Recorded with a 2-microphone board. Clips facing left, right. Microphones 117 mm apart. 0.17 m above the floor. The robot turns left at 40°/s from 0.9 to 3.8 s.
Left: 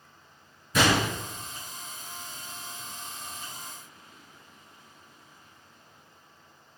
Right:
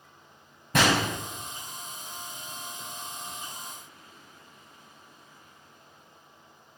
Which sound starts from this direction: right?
A gunshot, at 0.7 s.